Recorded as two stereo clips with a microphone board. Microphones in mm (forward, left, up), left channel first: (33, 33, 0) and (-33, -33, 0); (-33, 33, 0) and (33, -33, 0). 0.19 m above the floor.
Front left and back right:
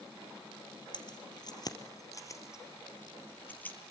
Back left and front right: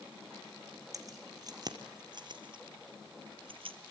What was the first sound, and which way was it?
Keys jangling, 5° left.